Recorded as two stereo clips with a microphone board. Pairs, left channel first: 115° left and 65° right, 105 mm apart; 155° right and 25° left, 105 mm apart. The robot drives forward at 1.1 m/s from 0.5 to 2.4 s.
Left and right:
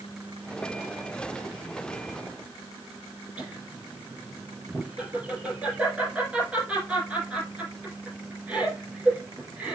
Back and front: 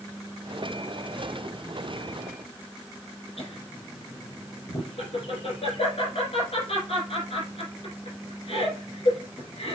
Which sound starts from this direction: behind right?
Laughter, at 3.4 s.